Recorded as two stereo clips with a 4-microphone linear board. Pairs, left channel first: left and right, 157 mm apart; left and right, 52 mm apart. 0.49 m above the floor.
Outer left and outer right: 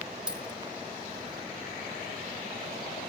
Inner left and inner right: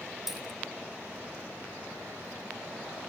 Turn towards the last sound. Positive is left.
turn(degrees=-5)  # may be behind; listen again after turning